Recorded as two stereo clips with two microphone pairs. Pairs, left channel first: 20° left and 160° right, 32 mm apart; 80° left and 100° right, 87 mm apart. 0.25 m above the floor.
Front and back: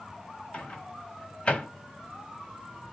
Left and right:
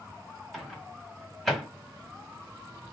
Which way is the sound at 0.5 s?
5° right.